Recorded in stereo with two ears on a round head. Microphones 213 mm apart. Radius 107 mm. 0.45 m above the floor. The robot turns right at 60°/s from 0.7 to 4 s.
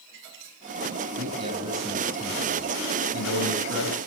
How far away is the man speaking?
About 3.5 m.